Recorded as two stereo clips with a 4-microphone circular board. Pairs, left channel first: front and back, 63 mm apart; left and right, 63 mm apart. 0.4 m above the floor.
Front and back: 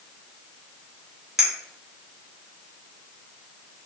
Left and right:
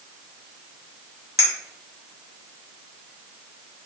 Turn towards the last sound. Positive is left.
turn(degrees=-100)